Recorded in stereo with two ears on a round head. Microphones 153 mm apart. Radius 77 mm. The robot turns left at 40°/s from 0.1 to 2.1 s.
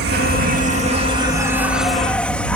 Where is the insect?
110° right; by 2.6 s 170° left.